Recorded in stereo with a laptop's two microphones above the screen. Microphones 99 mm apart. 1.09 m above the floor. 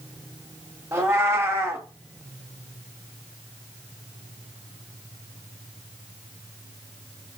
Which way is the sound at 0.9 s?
25° right (ahead or behind).